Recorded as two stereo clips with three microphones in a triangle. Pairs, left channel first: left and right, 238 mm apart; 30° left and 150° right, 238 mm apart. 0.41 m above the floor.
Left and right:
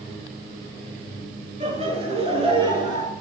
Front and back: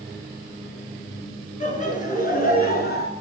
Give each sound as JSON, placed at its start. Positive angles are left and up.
{"t": 1.6, "sound": "laughter", "azimuth_deg": -30, "distance_m": 5.0}